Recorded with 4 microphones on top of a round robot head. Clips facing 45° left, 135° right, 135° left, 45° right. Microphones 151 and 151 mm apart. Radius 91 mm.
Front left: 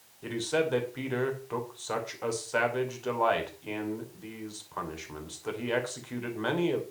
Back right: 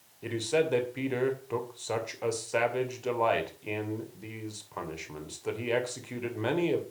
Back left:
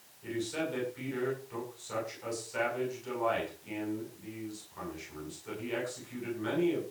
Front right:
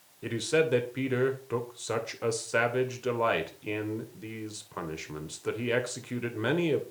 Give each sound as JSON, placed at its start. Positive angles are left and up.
{"t": 0.2, "sound": "a man speaking", "azimuth_deg": -60, "distance_m": 2.5}